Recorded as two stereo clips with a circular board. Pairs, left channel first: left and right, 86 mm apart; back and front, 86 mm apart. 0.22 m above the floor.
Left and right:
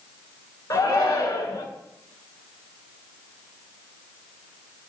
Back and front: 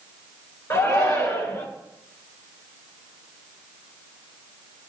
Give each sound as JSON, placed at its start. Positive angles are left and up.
{"t": 0.7, "sound": "a shout", "azimuth_deg": 130, "distance_m": 2.5}